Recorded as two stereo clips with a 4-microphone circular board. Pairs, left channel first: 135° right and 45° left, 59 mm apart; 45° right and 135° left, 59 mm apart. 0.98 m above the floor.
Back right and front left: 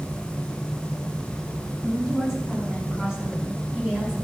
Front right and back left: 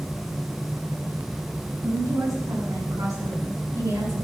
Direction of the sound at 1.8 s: 130° left.